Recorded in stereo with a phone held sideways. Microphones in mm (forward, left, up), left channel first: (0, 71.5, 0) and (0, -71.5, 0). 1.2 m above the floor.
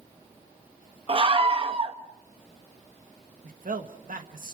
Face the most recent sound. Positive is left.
turn(degrees=-70)  # may be behind; listen again after turning